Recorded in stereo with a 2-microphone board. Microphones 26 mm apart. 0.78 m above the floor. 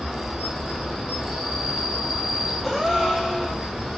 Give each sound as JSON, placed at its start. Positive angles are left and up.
{"t": 0.0, "sound": "an insect", "side_deg": -5, "distance_m": 1.2}
{"t": 2.6, "sound": "a gasp", "side_deg": -10, "distance_m": 0.6}